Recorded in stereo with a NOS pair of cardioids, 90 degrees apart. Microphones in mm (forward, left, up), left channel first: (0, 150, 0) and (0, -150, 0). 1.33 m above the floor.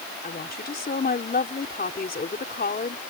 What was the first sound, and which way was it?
A woman speaking, 30° left.